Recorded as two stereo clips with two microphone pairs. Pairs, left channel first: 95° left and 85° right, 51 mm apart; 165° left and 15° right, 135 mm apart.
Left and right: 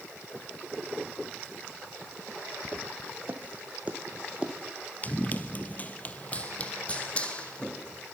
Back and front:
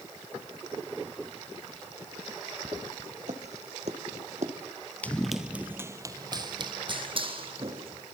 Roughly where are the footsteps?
Ahead right.